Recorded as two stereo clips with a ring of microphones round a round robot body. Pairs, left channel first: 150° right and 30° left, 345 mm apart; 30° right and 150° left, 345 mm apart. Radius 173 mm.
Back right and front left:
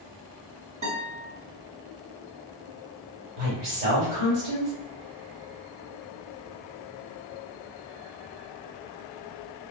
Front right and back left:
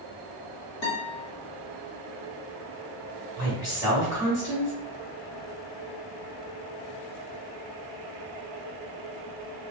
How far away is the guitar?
About 1.2 m.